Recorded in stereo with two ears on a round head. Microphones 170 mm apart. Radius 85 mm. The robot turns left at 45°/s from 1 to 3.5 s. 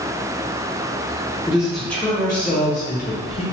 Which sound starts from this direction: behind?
A man speaking, at 1.5 s.